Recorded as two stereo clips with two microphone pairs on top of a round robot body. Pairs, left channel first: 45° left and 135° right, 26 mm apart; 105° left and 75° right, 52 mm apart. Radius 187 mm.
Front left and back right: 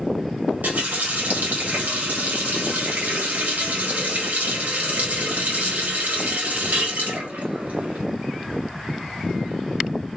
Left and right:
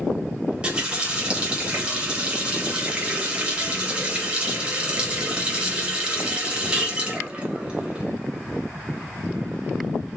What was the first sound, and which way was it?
A running tap, 145° right.